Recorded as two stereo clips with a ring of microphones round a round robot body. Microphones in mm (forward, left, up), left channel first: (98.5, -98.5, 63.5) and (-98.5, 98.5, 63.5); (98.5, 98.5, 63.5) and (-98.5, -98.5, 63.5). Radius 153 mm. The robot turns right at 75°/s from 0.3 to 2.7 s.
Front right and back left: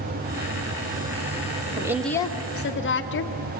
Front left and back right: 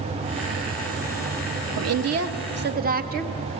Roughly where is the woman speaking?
Behind right.